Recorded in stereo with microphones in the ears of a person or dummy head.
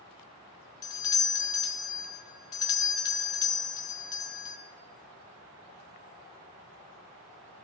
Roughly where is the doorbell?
Left.